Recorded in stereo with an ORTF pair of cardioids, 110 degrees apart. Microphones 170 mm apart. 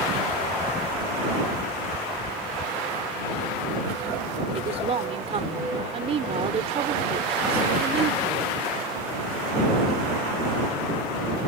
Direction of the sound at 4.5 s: 40° right.